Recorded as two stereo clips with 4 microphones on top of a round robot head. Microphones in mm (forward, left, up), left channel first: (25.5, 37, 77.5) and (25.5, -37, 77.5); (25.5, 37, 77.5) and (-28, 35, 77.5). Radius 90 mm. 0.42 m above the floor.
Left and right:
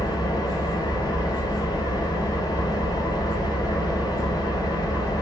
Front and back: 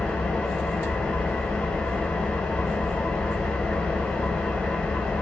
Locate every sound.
0.0 s an engine running: 70° left, 1.0 m